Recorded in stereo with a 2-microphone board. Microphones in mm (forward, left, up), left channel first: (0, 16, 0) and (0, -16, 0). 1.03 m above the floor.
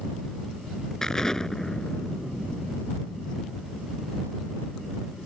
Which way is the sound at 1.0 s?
15° left (ahead or behind).